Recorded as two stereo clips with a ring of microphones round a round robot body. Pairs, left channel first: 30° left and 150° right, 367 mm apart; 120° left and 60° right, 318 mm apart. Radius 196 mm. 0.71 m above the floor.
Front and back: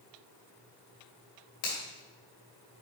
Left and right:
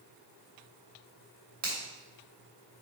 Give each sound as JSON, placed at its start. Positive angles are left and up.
{"t": 1.6, "sound": "a finger snap", "azimuth_deg": -30, "distance_m": 3.0}